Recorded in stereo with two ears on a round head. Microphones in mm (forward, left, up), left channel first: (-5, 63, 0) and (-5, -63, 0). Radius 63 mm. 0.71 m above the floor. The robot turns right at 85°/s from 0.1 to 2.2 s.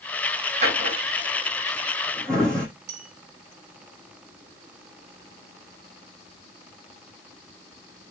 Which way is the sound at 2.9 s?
70° right (ahead or behind).